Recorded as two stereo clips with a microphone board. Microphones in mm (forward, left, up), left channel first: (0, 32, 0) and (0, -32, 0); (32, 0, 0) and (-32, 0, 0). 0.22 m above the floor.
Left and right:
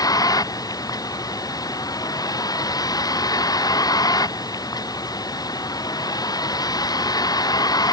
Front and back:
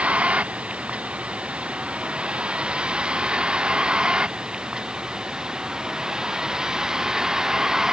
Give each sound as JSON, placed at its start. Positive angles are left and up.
{"t": 0.0, "sound": "a vehicle", "azimuth_deg": 110}